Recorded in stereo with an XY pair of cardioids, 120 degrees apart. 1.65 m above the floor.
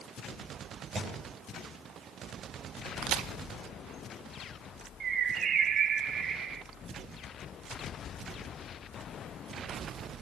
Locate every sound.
0.9 s a thud: 45° right, 8.5 m
3.0 s a crack: 70° right, 0.8 m
5.0 s a bird: 50° right, 0.9 m